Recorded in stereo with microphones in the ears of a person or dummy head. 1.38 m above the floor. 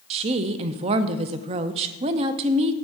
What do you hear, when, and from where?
0.1 s a woman speaking: 35° right (ahead or behind), 0.6 m